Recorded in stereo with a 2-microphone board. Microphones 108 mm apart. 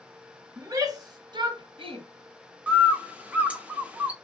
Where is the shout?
30° right (ahead or behind), 1.3 m; by 2.0 s 60° right (ahead or behind), 1.0 m.